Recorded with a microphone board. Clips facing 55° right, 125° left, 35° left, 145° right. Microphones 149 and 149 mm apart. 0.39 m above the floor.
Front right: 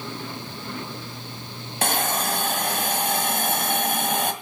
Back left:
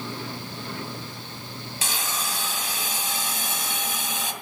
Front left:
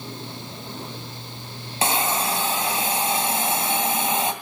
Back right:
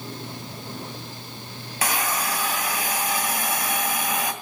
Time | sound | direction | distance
1.8 | a hiss | 30° right | 2.5 m